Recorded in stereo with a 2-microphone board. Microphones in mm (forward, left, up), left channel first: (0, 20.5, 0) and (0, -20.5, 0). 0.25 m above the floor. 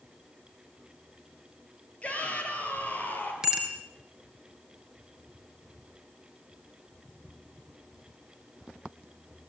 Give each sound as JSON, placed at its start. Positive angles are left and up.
{"t": 2.0, "sound": "a shout", "side_deg": 35, "distance_m": 6.0}
{"t": 3.4, "sound": "a bicycle bell", "side_deg": -15, "distance_m": 3.0}